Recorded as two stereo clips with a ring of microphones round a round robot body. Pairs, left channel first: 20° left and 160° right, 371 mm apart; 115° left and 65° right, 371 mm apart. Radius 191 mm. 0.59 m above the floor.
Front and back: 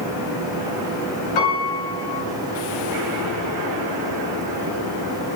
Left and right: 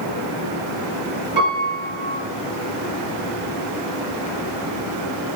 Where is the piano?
10° left, 2 m.